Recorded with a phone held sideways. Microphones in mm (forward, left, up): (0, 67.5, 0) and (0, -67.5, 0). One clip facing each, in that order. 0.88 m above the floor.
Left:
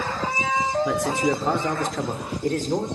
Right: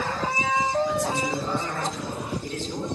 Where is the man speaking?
75° left (ahead or behind), 3 m; by 2.9 s 50° left (ahead or behind), 3.5 m.